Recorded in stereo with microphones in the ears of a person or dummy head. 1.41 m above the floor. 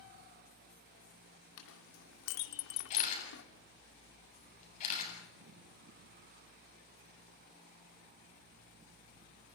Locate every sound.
1.6 s a clink: 70° left (ahead or behind), 2 m
2.9 s a camera shutter: 35° left (ahead or behind), 8 m